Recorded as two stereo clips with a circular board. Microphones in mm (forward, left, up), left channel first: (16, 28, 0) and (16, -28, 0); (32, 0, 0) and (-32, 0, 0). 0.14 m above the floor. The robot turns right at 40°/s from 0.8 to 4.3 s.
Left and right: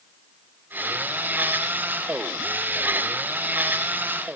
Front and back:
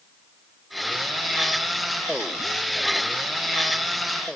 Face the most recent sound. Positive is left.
No sound to turn to.